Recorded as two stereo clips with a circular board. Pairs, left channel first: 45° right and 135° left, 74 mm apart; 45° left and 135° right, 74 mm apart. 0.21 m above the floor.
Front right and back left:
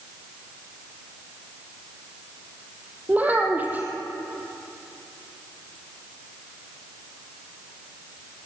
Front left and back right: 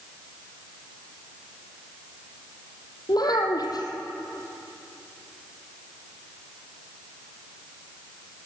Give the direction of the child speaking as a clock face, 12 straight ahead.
10 o'clock.